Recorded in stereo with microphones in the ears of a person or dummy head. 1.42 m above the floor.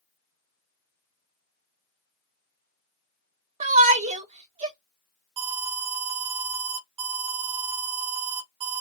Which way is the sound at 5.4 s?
30° right (ahead or behind).